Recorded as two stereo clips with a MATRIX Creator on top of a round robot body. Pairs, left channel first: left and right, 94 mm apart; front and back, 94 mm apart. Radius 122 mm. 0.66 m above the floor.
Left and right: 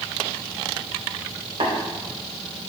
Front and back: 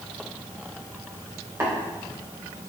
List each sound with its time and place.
1.6 s tapping: 120° right, 3 m